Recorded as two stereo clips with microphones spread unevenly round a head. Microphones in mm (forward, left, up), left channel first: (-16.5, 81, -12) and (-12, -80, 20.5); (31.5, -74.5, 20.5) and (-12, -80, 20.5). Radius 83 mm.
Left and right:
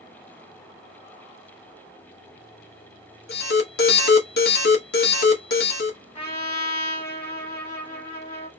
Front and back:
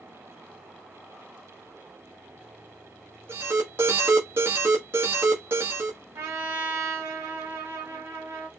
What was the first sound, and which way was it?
An alarm, 120° left.